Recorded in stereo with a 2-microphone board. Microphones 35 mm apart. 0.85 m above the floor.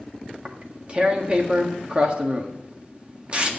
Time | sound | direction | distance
0.3 | tearing paper | 30° right (ahead or behind) | 1.6 m